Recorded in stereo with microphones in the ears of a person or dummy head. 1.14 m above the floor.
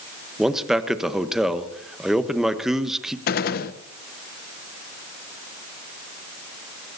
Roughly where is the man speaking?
Centre.